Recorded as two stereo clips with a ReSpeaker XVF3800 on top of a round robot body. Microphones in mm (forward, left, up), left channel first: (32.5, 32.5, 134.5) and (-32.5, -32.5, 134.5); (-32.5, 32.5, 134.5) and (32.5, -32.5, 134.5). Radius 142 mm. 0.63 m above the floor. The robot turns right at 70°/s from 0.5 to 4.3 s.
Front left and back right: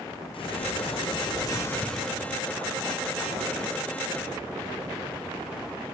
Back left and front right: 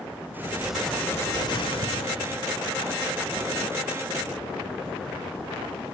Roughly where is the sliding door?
Ahead left.